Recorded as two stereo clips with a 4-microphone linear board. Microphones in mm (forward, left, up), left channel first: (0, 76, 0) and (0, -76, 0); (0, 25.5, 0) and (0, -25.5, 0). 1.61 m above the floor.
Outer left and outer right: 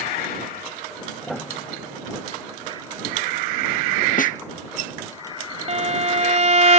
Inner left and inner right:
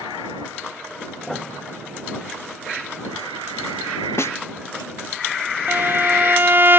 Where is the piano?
Centre (ahead or behind).